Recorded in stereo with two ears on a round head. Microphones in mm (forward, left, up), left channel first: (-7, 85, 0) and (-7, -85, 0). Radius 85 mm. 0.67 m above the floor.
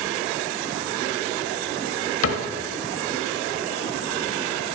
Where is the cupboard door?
75° left (ahead or behind), 1.0 m.